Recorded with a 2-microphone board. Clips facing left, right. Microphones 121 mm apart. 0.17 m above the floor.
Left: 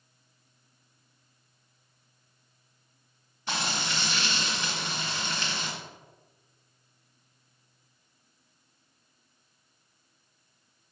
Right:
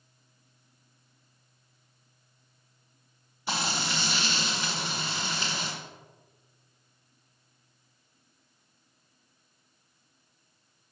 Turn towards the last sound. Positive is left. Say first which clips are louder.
# right 1 dB
turn(degrees=-10)  # may be behind; listen again after turning